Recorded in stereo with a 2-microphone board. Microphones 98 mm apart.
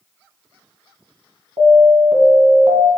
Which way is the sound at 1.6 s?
75° right (ahead or behind).